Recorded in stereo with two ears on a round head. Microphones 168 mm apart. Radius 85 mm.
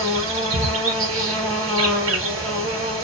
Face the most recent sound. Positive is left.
turn(degrees=-85)